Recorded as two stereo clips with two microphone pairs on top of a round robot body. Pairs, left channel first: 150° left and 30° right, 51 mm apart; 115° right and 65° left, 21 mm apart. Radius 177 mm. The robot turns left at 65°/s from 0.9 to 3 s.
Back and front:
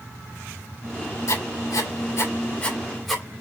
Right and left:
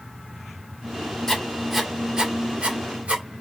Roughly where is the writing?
Behind.